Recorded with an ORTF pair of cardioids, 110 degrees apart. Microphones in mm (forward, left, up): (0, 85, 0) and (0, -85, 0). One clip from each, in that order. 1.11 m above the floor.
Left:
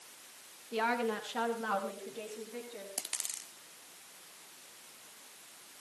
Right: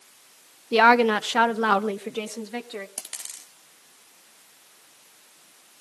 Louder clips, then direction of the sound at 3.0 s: Right 2 dB; 10° right.